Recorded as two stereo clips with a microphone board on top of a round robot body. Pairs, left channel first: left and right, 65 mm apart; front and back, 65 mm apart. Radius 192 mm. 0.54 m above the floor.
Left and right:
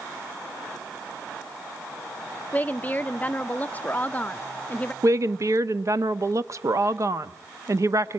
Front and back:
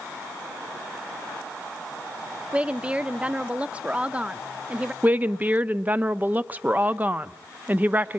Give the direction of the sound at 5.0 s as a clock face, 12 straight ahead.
4 o'clock.